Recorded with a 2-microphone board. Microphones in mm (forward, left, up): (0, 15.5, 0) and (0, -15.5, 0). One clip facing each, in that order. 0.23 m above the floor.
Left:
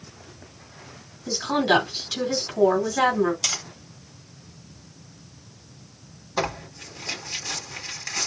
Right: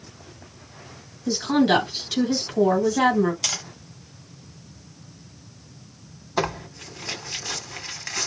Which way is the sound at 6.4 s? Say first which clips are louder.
Right 1 dB; 10° right (ahead or behind).